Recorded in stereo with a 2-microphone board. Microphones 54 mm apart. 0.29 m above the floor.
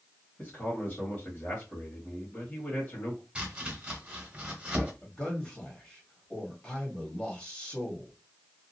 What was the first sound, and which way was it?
A man speaking, 35° left (ahead or behind).